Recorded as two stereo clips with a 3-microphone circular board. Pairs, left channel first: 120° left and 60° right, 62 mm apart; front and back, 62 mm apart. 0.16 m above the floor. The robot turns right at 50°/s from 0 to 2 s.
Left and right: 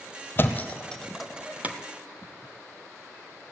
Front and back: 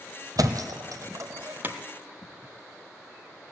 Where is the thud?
175° left, 1.0 m; by 1.8 s 115° right, 1.0 m.